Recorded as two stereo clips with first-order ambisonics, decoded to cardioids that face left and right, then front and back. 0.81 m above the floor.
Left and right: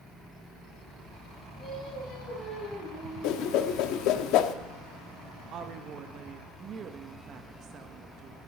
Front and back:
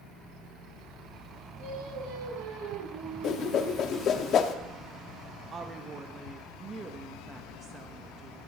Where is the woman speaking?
120° right, 0.9 m.